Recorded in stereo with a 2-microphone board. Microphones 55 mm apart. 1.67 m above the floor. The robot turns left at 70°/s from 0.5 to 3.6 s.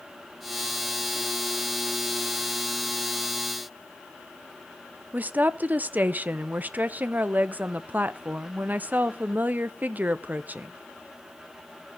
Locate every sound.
5.1 s a woman speaking: 30° right (ahead or behind), 0.6 m